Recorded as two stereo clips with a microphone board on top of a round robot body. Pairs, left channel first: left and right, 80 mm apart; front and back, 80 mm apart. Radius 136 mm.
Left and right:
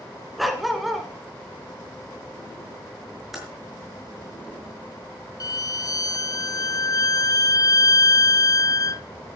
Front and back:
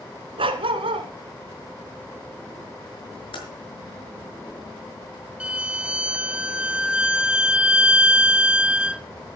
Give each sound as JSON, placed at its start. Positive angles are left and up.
{"t": 0.4, "sound": "a dog barking", "azimuth_deg": 180, "distance_m": 1.4}
{"t": 3.3, "sound": "typing on a keyboard", "azimuth_deg": 0, "distance_m": 6.0}
{"t": 5.4, "sound": "a violin", "azimuth_deg": 110, "distance_m": 0.6}